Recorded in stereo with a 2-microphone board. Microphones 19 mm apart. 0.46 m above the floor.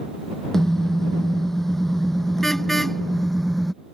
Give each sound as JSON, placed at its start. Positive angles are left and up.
{"t": 0.5, "sound": "a car horn", "side_deg": 20}